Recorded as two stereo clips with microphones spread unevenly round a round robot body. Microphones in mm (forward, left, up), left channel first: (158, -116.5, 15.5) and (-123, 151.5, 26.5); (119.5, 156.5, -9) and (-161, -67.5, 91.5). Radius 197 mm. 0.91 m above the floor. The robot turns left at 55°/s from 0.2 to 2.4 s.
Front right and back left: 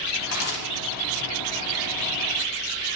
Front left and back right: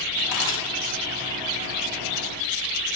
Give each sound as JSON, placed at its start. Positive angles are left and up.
{"t": 0.3, "sound": "a camera shutter", "azimuth_deg": 5, "distance_m": 3.0}